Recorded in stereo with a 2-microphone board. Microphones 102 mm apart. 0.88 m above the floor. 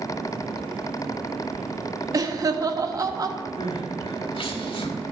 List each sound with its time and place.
2.1 s laughter: 35° right (ahead or behind), 1.0 m
3.6 s crying: 60° left (ahead or behind), 1.3 m